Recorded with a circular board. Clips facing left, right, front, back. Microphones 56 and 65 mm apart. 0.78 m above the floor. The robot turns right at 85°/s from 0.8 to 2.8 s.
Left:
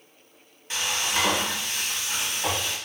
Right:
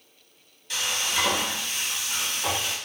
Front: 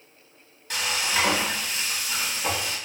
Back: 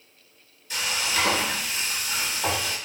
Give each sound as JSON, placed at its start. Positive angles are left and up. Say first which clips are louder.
{"t": 0.7, "sound": "frying", "louder": "left 1 dB, front 1 dB", "azimuth_deg": 30, "distance_m": 1.1}